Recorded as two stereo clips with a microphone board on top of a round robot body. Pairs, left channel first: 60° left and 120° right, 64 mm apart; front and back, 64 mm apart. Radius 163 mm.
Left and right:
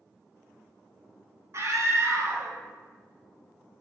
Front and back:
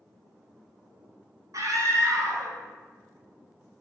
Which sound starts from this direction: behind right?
A scream, at 1.5 s.